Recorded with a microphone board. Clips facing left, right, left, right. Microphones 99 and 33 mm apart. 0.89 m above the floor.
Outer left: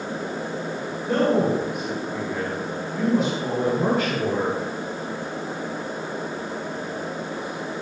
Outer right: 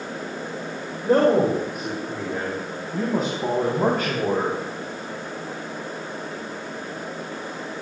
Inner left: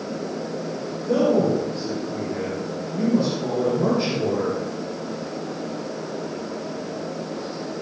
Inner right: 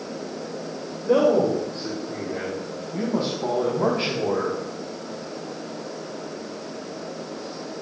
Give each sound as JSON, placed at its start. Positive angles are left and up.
{"t": 1.0, "sound": "a man speaking", "side_deg": -45, "distance_m": 3.5}